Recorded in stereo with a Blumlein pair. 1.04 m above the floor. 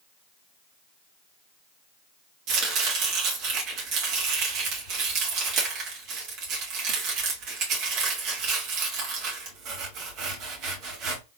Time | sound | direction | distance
2.5 | chopping | 40° right | 2.0 m